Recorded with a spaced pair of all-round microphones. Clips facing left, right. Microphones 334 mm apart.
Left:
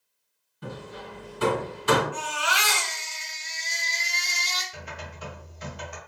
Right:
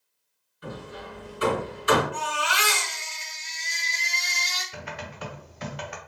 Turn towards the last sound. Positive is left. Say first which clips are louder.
# right 3 dB
turn(degrees=-75)  # may be behind; listen again after turning